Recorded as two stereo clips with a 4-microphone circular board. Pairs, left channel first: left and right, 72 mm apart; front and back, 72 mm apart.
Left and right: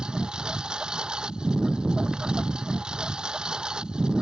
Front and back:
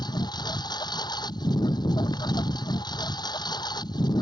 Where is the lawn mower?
10° right.